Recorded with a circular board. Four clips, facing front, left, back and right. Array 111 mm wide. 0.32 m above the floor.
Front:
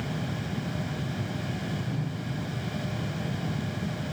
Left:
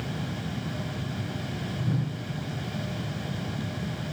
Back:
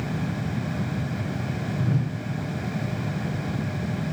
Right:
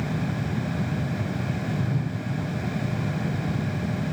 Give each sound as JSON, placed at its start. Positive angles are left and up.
{"t": 1.8, "sound": "a whoosh", "azimuth_deg": 165, "distance_m": 4.5}